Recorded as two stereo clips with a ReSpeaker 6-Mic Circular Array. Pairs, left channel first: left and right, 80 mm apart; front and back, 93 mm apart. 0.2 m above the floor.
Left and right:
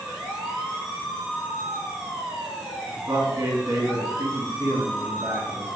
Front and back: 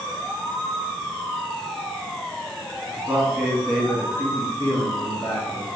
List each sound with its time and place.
2.9 s a man speaking: 130° right, 1.4 m; by 5.8 s 45° right, 2.5 m